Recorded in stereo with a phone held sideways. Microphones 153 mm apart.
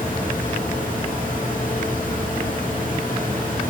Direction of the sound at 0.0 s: 60° left (ahead or behind).